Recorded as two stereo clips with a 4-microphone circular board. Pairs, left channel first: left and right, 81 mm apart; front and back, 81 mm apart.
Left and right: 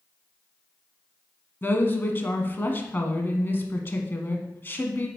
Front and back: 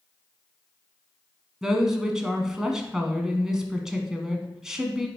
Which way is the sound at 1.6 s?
105° left.